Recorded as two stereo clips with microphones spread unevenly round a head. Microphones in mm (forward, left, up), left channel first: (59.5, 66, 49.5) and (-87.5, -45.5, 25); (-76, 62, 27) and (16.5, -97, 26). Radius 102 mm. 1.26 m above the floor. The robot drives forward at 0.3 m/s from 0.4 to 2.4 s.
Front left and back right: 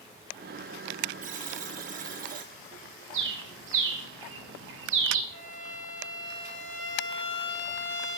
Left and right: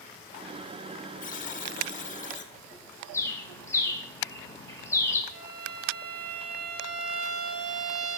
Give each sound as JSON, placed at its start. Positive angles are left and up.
{"t": 1.2, "sound": "a buzzer", "azimuth_deg": 165, "distance_m": 1.2}
{"t": 3.1, "sound": "a bird", "azimuth_deg": -165, "distance_m": 1.8}
{"t": 5.3, "sound": "a violin", "azimuth_deg": -5, "distance_m": 6.5}